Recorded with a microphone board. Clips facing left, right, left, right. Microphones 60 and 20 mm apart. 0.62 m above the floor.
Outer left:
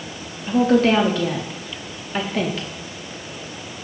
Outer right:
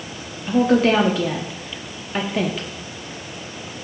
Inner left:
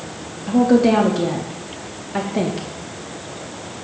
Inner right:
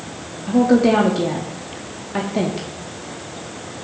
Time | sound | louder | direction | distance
0.5 | a woman speaking | even, even | 5° right (ahead or behind) | 0.7 m